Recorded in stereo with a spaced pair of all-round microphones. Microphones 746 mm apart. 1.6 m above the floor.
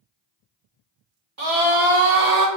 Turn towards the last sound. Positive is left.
turn(degrees=-55)  # may be behind; listen again after turning